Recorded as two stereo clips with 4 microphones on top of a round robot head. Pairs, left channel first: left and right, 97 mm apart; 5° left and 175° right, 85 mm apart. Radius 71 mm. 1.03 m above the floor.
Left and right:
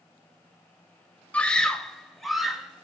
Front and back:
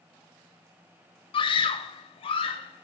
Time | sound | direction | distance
1.3 | a scream | 15° left | 1.0 m